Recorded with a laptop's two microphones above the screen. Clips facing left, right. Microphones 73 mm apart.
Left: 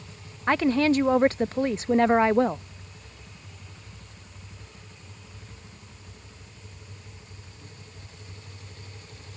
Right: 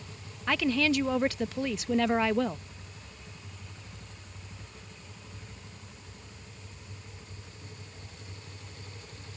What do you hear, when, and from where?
0.5 s a woman speaking: 35° left (ahead or behind)